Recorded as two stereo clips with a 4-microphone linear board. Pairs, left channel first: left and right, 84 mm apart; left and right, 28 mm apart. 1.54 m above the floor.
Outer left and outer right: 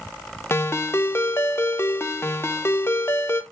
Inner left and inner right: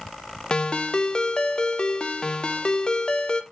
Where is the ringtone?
30° left (ahead or behind), 0.7 m.